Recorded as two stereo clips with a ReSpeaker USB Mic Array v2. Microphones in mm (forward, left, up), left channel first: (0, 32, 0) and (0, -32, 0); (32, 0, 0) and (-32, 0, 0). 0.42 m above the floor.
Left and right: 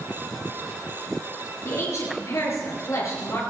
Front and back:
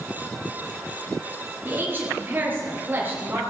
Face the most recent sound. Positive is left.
turn(degrees=120)